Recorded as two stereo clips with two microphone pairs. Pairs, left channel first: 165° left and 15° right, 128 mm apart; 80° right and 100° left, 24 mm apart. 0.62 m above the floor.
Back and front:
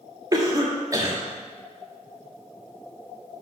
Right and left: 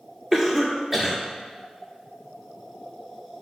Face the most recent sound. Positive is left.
turn(degrees=30)